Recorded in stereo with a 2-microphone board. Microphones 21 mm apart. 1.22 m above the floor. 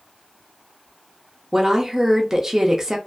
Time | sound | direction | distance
1.5 | a woman speaking | 25° right (ahead or behind) | 0.5 m